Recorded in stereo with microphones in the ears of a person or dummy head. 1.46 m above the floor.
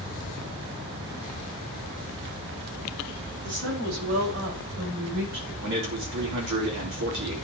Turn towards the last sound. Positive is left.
turn(degrees=-65)  # may be behind; listen again after turning